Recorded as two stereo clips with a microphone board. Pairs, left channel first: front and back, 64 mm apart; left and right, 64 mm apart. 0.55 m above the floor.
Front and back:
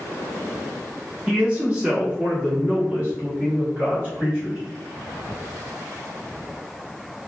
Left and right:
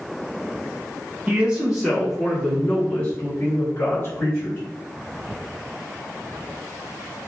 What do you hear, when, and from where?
1.3 s a man speaking: 125° right, 1.1 m; by 4.6 s 120° left, 1.9 m